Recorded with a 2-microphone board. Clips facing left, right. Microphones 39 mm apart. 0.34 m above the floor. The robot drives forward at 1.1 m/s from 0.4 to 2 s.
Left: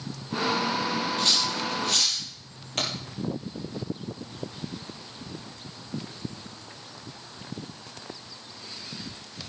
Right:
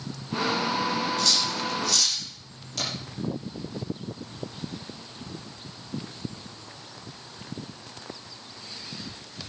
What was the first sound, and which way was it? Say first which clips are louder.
Cutlery clinking: even; 30° left (ahead or behind).